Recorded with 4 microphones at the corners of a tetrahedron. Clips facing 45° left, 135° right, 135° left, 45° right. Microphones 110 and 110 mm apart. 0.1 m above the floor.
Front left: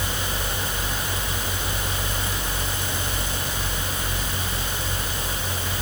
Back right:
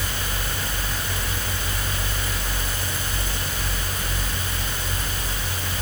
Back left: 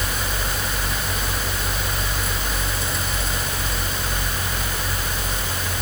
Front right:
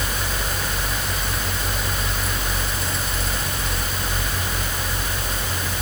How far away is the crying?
No crying in this recording.